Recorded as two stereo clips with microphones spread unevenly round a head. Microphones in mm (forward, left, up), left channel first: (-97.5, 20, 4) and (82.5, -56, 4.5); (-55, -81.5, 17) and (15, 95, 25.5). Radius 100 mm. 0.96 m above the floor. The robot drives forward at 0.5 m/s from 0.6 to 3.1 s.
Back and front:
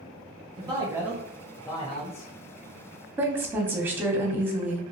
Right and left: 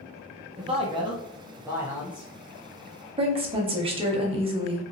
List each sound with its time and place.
0.6 s a man speaking: 25° left, 0.8 m; by 2.3 s 155° left, 0.8 m
3.2 s a woman speaking: 45° left, 0.6 m